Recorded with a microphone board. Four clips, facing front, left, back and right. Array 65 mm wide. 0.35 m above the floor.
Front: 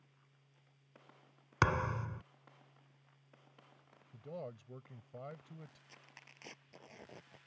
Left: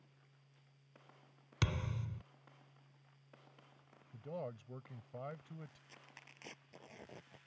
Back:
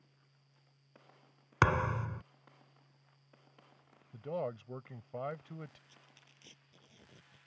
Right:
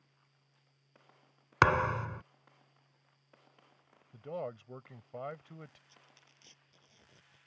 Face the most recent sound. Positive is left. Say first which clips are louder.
# left 4 dB, front 4 dB
turn(degrees=40)